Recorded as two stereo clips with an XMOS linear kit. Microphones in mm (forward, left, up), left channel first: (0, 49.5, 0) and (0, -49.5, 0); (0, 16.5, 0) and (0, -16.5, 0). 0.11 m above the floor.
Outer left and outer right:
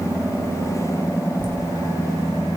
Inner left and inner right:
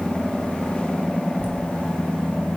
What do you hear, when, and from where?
1.4 s laughter: 50° right (ahead or behind), 5 m